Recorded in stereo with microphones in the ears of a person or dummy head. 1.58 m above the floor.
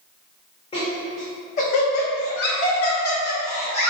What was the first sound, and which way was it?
Laughter, 25° left (ahead or behind).